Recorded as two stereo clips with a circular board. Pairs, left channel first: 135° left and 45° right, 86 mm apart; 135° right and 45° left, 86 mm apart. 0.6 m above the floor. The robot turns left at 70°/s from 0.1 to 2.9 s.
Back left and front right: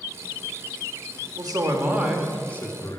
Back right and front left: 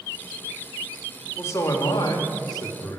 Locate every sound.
1.4 s a man speaking: 75° right, 1.3 m; by 3.0 s straight behind, 1.3 m